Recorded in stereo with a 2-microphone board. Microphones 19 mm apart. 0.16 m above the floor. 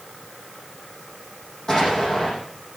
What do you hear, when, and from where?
1.7 s an explosion: 30° left (ahead or behind), 7 m